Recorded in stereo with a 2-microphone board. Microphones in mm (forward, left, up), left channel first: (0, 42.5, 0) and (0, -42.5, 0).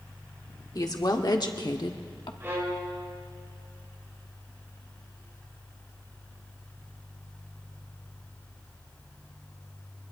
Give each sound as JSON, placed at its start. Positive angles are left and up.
{"t": 0.8, "sound": "a woman speaking", "side_deg": 45, "distance_m": 1.6}
{"t": 2.4, "sound": "a violin", "side_deg": -30, "distance_m": 3.0}